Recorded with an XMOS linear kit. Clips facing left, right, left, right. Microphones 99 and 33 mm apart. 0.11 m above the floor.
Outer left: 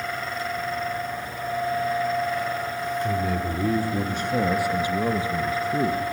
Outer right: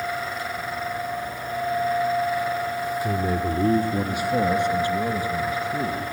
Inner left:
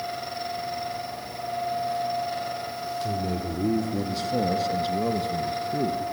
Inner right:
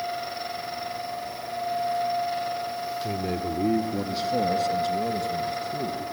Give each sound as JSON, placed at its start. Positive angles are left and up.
{"t": 3.0, "sound": "a man speaking", "side_deg": -45, "distance_m": 1.8}